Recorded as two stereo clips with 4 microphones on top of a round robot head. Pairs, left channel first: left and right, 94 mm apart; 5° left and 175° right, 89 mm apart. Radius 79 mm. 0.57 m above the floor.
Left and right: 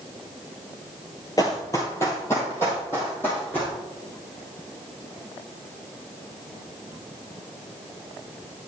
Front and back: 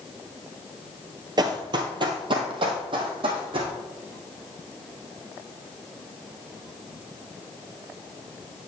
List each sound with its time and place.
1.4 s running footsteps: 155° left, 0.9 m; by 3.7 s 165° left, 2 m